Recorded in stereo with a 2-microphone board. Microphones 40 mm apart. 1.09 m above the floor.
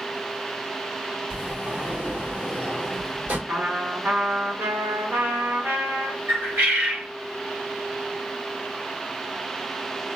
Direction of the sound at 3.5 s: 70° right (ahead or behind).